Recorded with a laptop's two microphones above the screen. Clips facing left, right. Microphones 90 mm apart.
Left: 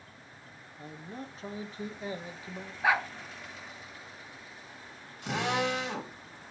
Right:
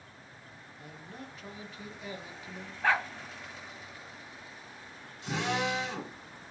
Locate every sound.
0.8 s a man speaking: 35° left (ahead or behind), 0.7 m
2.8 s a dog barking: 10° left (ahead or behind), 0.6 m
5.2 s a drill: 70° left (ahead or behind), 1.6 m